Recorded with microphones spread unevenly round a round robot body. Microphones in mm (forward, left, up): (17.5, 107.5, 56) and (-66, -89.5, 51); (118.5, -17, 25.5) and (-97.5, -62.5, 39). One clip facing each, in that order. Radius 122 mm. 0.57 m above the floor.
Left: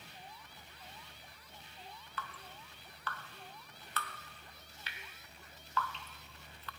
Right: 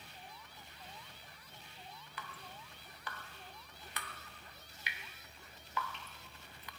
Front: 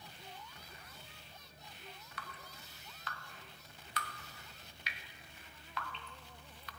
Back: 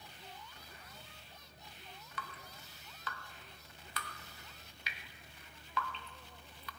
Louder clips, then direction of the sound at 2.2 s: Left 2 dB, back 5 dB; 170° left.